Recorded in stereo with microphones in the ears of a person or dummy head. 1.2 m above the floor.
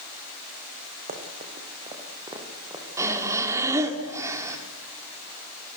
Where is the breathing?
15° right (ahead or behind), 2 m.